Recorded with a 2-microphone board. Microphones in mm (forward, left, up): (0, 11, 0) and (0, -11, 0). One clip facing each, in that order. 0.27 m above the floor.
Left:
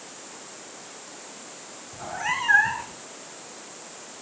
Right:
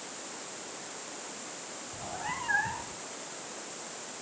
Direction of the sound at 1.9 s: 60° left (ahead or behind).